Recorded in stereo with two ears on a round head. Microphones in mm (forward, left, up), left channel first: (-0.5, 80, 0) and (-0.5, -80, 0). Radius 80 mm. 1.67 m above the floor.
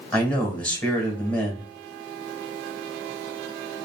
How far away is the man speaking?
About 1.7 m.